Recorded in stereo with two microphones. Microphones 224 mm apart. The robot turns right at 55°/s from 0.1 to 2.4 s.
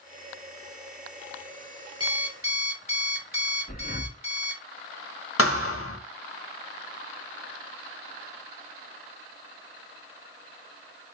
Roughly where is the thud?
Left.